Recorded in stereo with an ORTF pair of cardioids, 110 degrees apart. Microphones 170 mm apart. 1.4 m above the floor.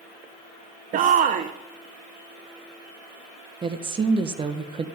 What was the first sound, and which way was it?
A shout, 50° right.